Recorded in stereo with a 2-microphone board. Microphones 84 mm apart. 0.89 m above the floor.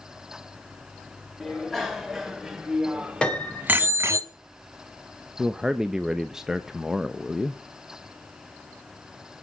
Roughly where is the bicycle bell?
Centre.